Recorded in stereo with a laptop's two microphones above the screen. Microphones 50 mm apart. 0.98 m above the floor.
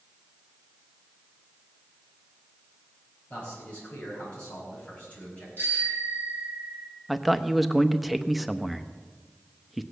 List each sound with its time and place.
3.3 s a man speaking: 30° left (ahead or behind), 6 m
5.6 s a bicycle bell: 40° left (ahead or behind), 8 m
7.1 s a man speaking: 5° right (ahead or behind), 0.9 m